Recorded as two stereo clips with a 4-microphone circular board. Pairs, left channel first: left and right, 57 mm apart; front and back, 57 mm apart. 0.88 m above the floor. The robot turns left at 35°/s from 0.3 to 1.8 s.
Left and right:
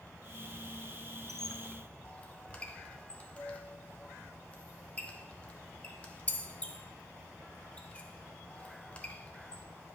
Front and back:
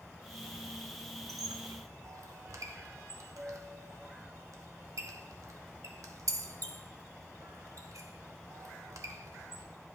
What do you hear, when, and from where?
1.3 s a squeak: 175° left, 0.7 m; by 9.6 s 160° left, 0.7 m